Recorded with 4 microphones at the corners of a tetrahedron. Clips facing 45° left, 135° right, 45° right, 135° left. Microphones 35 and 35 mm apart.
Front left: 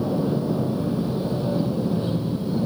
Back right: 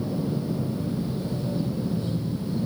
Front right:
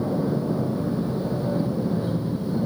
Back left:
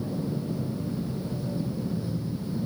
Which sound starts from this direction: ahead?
An aircraft, at 0.0 s.